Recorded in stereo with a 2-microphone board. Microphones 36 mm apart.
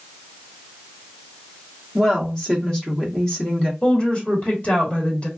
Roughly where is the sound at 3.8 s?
Left.